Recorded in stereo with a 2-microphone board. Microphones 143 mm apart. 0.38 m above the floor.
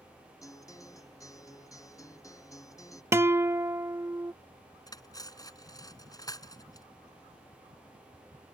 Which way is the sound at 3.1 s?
20° right (ahead or behind).